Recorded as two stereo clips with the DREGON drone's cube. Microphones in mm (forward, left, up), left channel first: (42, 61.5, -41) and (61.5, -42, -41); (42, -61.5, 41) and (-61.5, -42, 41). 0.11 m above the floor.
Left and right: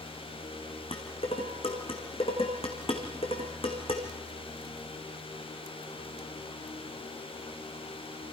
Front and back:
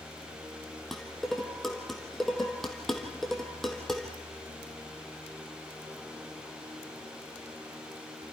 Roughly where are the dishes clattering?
Left.